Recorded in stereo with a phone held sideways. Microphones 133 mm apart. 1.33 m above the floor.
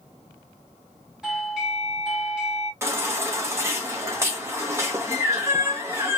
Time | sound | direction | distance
1.2 | a doorbell | 5° right (ahead or behind) | 1.0 m
2.8 | a baby crying | 20° right (ahead or behind) | 0.7 m